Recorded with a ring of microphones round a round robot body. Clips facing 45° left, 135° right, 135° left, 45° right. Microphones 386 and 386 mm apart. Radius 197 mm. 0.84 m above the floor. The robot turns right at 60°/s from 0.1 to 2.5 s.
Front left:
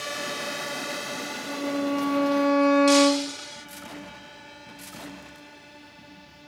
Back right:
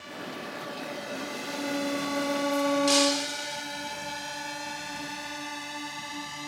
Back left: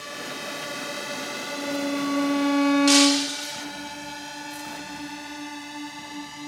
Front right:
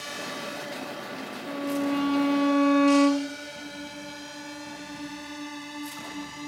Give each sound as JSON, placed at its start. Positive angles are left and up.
{"t": 0.0, "sound": "a drone", "azimuth_deg": 40}
{"t": 1.5, "sound": "a violin", "azimuth_deg": -10}
{"t": 2.9, "sound": "breaking glass", "azimuth_deg": 140}